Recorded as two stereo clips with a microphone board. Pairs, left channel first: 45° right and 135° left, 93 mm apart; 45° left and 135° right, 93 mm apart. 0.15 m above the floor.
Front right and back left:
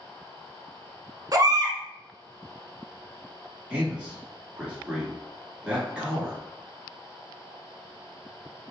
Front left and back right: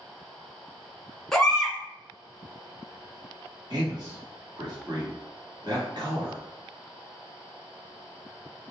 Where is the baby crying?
125° left, 0.7 m.